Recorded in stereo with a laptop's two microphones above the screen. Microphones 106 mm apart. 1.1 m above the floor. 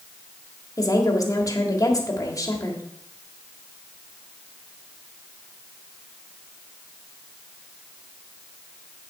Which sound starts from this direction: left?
A woman speaking, at 0.8 s.